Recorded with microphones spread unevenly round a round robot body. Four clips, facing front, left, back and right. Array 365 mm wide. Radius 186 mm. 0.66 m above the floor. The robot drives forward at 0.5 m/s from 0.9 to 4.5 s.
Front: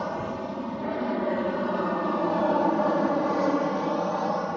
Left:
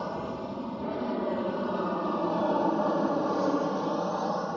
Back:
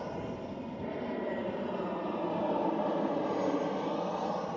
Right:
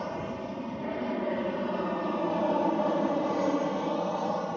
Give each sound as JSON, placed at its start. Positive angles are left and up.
{"t": 0.0, "sound": "an aircraft", "azimuth_deg": 0}